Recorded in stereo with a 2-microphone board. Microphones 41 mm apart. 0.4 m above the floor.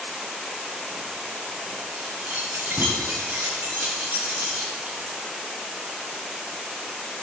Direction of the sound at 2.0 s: 60° right (ahead or behind).